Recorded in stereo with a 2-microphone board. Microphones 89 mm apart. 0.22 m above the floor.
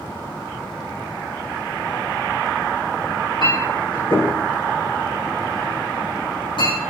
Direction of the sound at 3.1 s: 60° left (ahead or behind).